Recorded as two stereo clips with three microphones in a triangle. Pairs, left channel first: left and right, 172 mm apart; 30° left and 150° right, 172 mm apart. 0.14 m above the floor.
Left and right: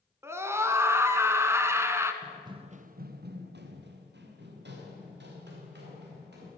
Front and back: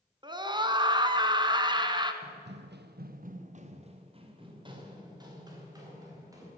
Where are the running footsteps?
175° right, 1.0 m; by 6.5 s 80° right, 5.5 m.